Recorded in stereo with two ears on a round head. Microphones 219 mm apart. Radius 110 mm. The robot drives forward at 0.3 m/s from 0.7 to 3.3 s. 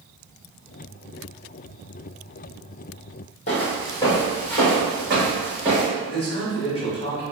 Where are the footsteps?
30° left (ahead or behind), 1.1 m; by 5.9 s 10° right (ahead or behind), 2.0 m.